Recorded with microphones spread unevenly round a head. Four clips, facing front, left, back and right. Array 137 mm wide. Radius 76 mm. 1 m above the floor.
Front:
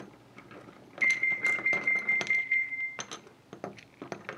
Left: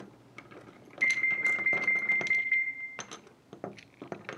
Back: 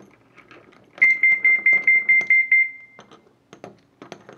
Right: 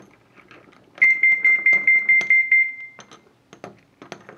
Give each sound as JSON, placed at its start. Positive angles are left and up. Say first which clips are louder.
{"t": 1.0, "sound": "an alarm", "louder": "right 12 dB, back 11 dB", "azimuth_deg": -120, "distance_m": 0.6}